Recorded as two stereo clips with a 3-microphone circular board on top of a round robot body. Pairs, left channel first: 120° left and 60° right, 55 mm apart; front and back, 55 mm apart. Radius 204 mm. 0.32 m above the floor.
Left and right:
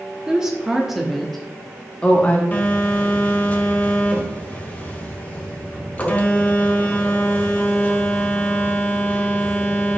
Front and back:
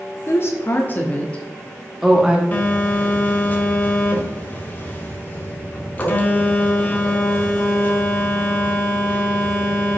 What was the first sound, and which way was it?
A woman speaking, 10° left.